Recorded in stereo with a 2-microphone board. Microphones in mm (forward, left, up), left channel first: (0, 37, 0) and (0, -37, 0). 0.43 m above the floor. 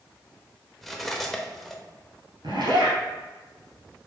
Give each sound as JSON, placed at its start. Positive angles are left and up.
{"t": 0.8, "sound": "cutlery clinking", "side_deg": 5, "distance_m": 0.6}
{"t": 2.4, "sound": "a zipper", "side_deg": -80, "distance_m": 1.5}